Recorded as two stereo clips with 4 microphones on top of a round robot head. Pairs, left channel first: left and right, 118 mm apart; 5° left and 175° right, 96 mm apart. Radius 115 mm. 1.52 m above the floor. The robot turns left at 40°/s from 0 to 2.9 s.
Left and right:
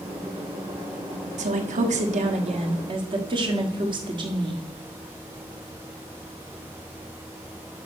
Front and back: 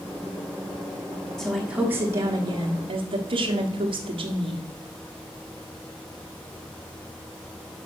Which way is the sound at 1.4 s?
80° right.